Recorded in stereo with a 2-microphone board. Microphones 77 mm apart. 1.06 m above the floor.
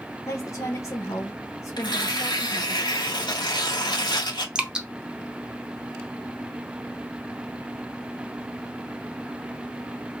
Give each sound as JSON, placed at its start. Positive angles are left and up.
{"t": 0.3, "sound": "a woman speaking", "side_deg": 40, "distance_m": 0.9}
{"t": 1.8, "sound": "tearing paper", "side_deg": 70, "distance_m": 1.2}
{"t": 4.5, "sound": "dripping", "side_deg": -10, "distance_m": 0.7}